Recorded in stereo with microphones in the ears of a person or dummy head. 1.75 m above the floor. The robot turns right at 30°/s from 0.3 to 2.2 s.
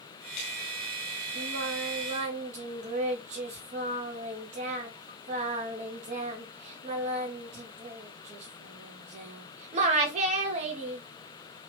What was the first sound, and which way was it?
Singing, 60° right (ahead or behind).